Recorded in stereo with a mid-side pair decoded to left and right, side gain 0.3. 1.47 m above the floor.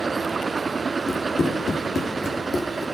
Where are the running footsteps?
55° left, 5.5 m; by 2.9 s 30° left, 3.5 m.